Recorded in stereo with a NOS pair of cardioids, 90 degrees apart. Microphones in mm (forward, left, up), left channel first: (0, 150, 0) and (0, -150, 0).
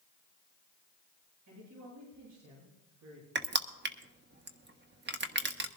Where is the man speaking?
65° right, 8.5 m.